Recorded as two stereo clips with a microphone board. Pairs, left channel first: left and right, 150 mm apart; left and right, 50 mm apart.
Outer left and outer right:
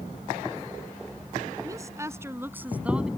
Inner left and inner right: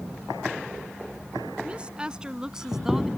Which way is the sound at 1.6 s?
25° right (ahead or behind).